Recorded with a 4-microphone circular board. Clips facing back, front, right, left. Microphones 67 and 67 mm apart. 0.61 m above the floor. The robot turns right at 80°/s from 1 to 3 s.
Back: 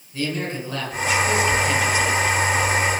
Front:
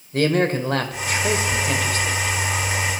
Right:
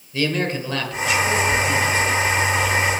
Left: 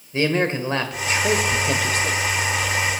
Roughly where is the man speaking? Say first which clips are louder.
Front 7 dB, left 2 dB; ahead left.